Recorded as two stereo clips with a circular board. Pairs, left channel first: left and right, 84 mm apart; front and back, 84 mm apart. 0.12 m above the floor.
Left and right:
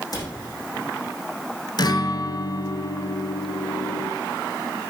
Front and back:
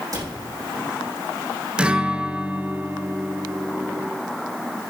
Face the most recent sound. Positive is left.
turn(degrees=105)